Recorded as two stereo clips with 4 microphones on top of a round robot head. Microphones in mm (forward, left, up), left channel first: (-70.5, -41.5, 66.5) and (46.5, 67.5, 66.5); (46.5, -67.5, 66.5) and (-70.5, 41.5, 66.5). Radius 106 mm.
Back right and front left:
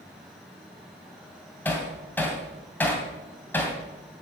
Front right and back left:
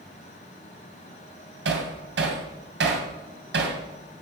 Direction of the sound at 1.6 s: 145° left.